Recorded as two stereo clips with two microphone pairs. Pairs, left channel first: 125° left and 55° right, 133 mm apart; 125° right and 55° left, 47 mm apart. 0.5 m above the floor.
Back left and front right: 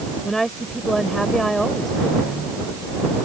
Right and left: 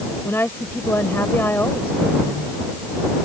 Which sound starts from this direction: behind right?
A woman speaking, at 0.2 s.